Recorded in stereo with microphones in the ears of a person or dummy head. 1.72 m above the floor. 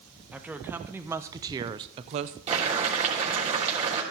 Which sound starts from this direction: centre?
A woman speaking, at 0.3 s.